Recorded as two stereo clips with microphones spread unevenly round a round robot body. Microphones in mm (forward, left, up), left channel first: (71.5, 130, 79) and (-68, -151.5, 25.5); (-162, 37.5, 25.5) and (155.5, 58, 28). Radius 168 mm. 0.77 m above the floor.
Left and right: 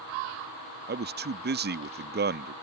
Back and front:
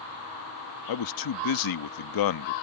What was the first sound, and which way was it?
A man speaking, 170° right.